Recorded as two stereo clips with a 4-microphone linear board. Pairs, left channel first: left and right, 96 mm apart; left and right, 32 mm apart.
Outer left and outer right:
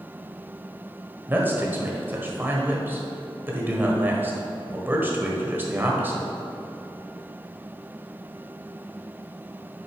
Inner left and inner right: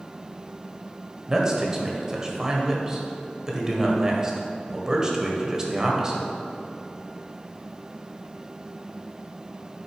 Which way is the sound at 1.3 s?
20° right (ahead or behind).